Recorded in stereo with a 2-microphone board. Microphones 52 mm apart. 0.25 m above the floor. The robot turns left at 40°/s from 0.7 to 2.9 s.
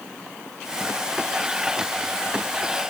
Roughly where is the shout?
I don't hear a shout.